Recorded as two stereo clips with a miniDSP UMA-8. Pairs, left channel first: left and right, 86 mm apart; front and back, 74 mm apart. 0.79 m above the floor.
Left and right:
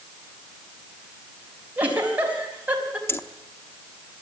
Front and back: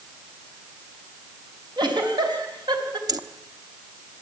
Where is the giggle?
165° right, 4 m.